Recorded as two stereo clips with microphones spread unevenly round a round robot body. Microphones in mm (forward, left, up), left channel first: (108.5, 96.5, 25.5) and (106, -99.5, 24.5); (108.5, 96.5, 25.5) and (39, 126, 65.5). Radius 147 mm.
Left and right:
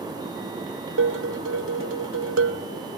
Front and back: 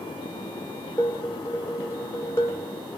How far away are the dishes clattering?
About 1.7 m.